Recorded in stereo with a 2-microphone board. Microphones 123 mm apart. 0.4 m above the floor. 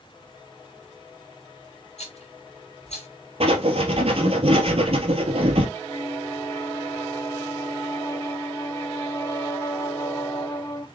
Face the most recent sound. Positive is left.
turn(degrees=30)  # may be behind; listen again after turning